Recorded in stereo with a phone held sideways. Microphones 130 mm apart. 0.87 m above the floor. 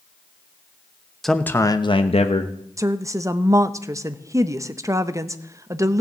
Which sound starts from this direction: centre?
A man speaking, at 1.2 s.